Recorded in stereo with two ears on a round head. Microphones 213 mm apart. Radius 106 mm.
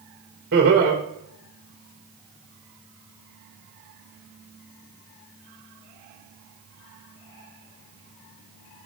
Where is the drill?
No drill in this recording.